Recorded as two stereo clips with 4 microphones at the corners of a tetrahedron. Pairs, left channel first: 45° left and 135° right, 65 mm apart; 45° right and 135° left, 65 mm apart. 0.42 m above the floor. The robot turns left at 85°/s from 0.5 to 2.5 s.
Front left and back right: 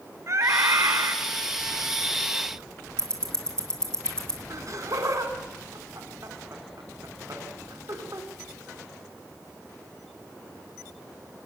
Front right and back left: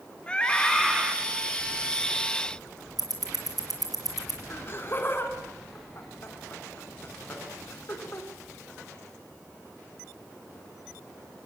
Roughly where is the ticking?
Behind left.